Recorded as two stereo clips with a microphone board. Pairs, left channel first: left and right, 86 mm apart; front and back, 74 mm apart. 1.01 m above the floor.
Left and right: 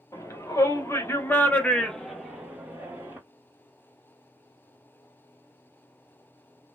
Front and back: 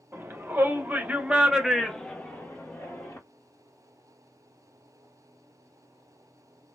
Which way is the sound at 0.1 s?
130° left.